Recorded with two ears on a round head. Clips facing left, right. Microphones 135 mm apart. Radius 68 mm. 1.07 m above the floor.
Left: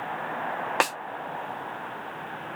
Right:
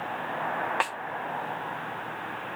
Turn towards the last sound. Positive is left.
turn(degrees=50)  # may be behind; listen again after turning